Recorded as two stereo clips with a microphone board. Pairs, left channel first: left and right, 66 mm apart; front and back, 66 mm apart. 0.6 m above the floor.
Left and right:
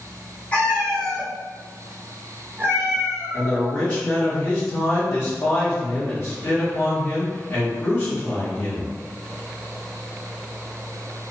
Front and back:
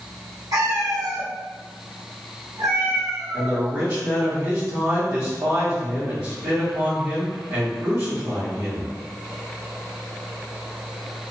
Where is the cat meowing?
155° left, 1.4 m; by 3.6 s 145° right, 2 m.